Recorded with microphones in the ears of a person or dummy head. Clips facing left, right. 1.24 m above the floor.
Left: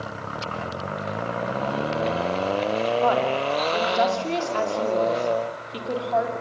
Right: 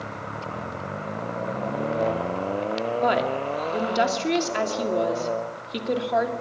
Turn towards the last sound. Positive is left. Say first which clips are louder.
# left 2 dB
turn(degrees=-20)  # may be behind; listen again after turning